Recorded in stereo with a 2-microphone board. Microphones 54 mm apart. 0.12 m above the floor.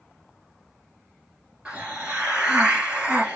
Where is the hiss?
20° right (ahead or behind), 2.5 m.